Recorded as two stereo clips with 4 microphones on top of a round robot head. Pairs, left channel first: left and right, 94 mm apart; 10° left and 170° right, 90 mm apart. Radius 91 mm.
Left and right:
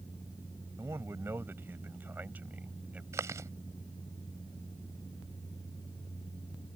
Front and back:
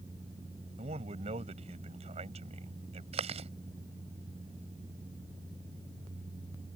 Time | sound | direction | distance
0.8 | a man speaking | 160° right | ?
3.1 | chewing | 155° right | ?